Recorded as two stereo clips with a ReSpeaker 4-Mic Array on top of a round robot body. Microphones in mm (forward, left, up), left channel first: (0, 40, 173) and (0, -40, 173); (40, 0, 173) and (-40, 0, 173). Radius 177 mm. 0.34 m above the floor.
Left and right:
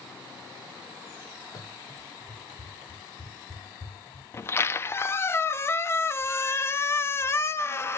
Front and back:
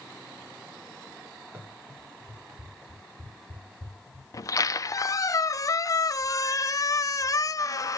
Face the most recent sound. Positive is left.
turn(degrees=35)